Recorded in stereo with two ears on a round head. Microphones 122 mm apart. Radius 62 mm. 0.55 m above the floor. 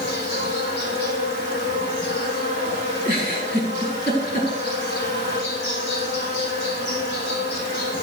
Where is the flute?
No flute in this recording.